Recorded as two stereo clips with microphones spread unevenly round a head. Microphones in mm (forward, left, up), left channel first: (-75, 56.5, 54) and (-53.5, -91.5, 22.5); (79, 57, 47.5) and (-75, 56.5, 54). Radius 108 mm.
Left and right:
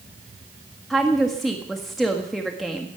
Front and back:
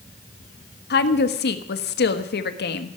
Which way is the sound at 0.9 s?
10° left.